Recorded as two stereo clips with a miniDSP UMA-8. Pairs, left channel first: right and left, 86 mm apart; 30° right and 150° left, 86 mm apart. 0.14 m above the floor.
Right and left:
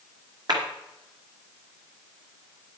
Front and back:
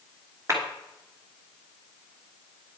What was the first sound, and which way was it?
A clap, 100° left.